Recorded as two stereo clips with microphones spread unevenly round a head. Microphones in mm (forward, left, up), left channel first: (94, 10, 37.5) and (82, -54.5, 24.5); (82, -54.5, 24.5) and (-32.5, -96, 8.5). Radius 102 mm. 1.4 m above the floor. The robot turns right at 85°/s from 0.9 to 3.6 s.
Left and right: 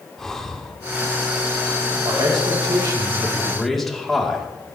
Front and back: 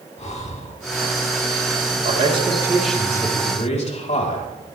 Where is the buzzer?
I don't hear a buzzer.